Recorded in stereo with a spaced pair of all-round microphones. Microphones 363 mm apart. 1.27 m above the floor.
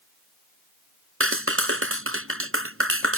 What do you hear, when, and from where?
1.2 s a clap: 35° right (ahead or behind)